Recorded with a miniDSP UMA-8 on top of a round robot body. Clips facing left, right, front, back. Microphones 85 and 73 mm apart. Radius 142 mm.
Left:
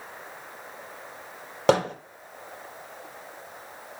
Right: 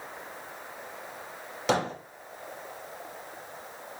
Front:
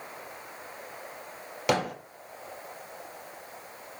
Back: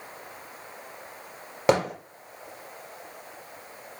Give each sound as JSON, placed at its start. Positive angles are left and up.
{"t": 1.7, "sound": "hammering", "azimuth_deg": 125, "distance_m": 4.0}